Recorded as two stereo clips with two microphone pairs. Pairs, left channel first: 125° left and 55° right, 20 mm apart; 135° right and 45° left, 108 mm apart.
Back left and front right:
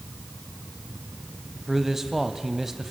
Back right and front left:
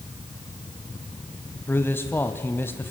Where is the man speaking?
105° right, 1.1 m.